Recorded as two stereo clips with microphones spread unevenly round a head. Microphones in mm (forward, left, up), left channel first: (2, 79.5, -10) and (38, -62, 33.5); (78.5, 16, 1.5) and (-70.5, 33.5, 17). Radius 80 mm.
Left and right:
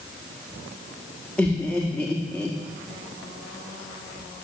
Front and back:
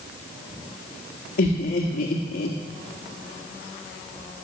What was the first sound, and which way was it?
Laughter, 20° left.